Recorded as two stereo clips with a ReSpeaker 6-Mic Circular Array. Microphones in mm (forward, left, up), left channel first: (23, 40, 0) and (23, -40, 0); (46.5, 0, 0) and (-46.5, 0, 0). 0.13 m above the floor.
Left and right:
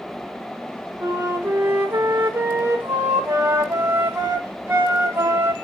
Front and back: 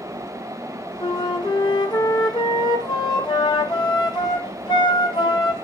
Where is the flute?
30° right, 3.5 m.